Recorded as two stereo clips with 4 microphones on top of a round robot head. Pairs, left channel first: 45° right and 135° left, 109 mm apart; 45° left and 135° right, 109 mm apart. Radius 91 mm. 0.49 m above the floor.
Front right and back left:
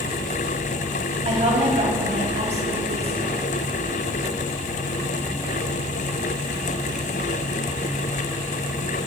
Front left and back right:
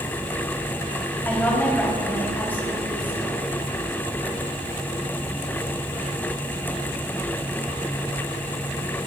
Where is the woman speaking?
115° left, 4.5 m.